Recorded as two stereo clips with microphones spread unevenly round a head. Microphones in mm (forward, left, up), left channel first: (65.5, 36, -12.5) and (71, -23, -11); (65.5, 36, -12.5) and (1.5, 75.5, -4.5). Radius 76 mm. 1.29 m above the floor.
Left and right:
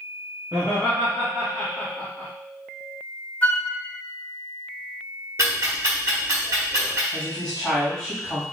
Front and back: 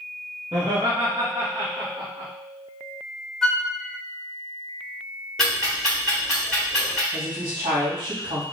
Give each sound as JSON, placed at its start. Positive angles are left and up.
{"t": 0.5, "sound": "laughter", "azimuth_deg": -150, "distance_m": 1.4}
{"t": 3.4, "sound": "a flute", "azimuth_deg": 50, "distance_m": 1.1}
{"t": 5.4, "sound": "ticking", "azimuth_deg": -125, "distance_m": 1.3}
{"t": 7.1, "sound": "a woman speaking", "azimuth_deg": 180, "distance_m": 2.5}